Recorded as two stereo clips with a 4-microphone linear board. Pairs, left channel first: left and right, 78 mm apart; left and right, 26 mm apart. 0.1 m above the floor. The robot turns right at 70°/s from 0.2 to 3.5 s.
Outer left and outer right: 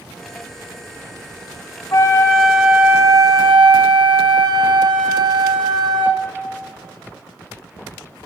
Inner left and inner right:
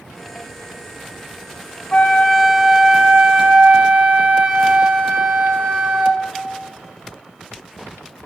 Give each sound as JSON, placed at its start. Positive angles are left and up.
{"t": 1.9, "sound": "a flute", "azimuth_deg": 135, "distance_m": 1.3}